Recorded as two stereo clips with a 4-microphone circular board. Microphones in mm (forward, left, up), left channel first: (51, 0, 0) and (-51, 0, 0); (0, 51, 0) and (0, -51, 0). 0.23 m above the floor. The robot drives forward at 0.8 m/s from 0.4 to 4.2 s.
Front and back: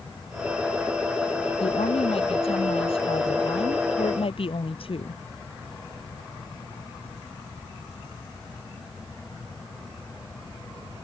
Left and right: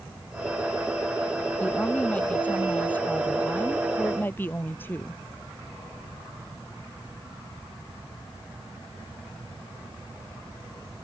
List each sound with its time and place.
1.6 s a woman speaking: 15° left; by 5.2 s 20° left